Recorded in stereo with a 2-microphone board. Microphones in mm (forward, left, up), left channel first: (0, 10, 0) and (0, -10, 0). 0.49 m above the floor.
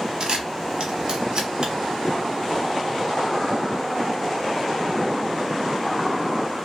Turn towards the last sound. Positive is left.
turn(degrees=-50)  # may be behind; listen again after turning